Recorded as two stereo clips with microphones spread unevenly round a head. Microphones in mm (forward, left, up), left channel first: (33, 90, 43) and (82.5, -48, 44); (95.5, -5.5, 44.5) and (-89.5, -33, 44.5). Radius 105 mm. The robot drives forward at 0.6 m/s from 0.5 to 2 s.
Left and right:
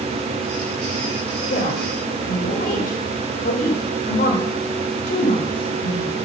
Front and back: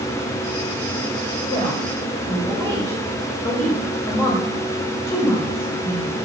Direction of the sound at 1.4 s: 80° left.